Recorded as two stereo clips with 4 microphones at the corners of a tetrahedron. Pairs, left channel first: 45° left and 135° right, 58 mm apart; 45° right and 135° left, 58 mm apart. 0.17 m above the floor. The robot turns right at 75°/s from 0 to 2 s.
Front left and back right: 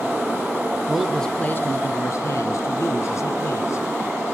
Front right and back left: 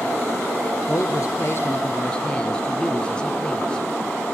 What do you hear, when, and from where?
0.9 s a man speaking: 60° right, 2.5 m; by 3.9 s 25° left, 2.5 m